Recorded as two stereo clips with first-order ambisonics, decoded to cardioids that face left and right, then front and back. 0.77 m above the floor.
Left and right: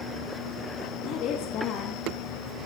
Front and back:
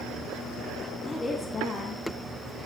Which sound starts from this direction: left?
A woman speaking, at 1.0 s.